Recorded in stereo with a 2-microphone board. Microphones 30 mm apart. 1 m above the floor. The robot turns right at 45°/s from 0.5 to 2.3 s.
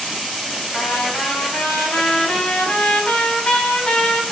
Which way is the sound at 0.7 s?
65° left.